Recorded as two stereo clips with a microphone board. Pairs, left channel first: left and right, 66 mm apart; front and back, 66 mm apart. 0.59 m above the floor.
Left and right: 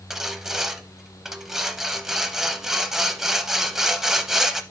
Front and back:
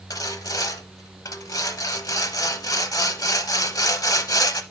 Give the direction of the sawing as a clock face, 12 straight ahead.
12 o'clock.